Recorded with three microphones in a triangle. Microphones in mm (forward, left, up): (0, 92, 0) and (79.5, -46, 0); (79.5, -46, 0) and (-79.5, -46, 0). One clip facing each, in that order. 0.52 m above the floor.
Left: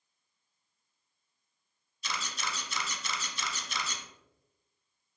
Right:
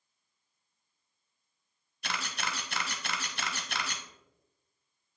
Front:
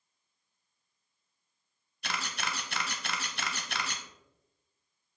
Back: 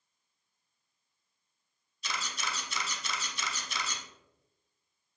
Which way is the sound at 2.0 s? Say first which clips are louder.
Right 1 dB, front 2 dB; 30° right.